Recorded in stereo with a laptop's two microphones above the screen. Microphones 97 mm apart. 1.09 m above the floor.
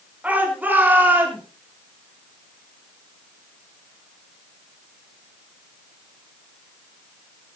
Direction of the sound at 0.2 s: 15° right (ahead or behind).